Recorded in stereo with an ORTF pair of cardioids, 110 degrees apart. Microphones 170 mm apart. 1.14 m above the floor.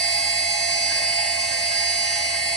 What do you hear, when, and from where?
0.0 s a machine running: 40° right, 3 m